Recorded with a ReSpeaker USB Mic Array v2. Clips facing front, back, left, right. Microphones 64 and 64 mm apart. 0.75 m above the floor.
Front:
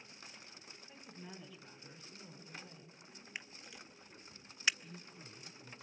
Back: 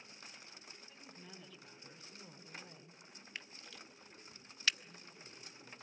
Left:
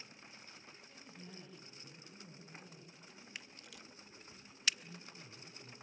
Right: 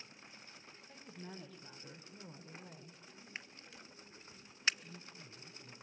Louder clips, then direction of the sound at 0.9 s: Front 6 dB, right 5 dB; 65° right.